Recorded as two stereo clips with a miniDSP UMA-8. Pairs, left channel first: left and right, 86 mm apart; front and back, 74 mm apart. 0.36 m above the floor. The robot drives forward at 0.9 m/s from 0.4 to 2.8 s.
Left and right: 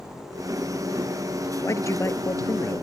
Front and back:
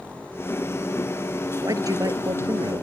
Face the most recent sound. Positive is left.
turn(degrees=150)